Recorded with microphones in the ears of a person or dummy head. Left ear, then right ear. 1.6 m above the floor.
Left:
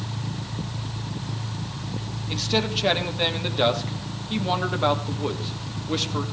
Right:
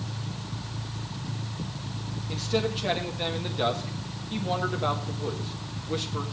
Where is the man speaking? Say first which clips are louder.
Left 4 dB; 20° left (ahead or behind), 1.4 m.